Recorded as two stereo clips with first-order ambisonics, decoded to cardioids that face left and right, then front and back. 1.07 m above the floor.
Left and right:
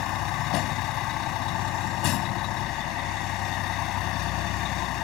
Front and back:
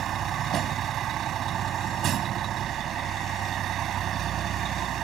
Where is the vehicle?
125° left.